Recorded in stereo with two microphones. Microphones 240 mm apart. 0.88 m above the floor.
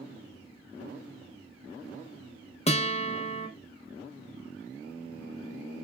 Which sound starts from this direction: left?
A guitar, at 2.7 s.